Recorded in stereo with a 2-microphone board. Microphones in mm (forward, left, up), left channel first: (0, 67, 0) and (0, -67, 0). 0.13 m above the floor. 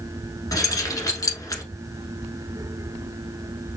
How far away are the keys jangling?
About 1.0 m.